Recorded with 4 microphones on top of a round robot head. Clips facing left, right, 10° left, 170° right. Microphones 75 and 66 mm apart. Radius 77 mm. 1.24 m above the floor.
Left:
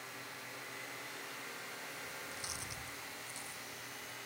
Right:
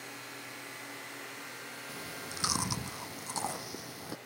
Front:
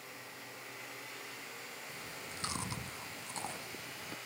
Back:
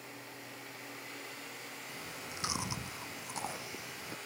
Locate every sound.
1.9 s chewing: 90° right